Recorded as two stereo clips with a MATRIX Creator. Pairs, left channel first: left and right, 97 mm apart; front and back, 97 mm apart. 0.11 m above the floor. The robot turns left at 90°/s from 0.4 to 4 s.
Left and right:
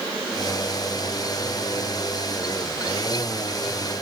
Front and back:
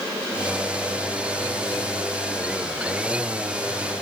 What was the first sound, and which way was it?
Only background noise.